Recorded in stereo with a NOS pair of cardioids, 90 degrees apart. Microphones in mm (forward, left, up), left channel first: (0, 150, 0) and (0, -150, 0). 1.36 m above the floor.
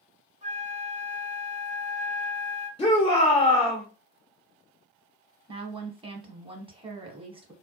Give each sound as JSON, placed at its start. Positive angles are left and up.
{"t": 0.4, "sound": "a flute", "azimuth_deg": -25, "distance_m": 1.0}
{"t": 2.8, "sound": "a shout", "azimuth_deg": 15, "distance_m": 0.6}
{"t": 5.5, "sound": "a woman speaking", "azimuth_deg": -20, "distance_m": 1.0}